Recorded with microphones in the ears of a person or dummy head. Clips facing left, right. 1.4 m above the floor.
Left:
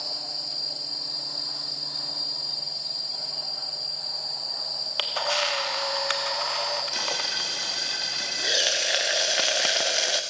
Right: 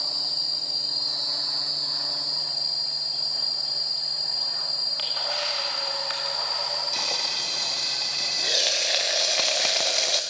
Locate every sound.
5.0 s a camera shutter: 55° left (ahead or behind), 1.6 m
6.9 s frying: 5° left (ahead or behind), 0.7 m